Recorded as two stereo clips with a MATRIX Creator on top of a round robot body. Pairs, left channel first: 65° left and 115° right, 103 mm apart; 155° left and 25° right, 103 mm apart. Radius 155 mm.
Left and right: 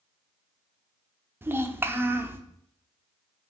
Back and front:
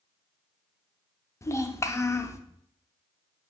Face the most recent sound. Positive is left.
turn(degrees=-165)